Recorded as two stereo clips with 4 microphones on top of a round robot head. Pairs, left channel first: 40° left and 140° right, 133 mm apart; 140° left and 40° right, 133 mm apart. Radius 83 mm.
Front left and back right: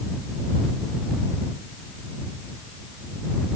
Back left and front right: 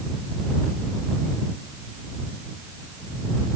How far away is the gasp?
I don't hear a gasp.